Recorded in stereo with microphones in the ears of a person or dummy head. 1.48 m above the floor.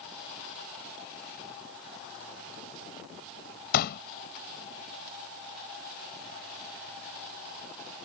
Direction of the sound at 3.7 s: 60° left (ahead or behind).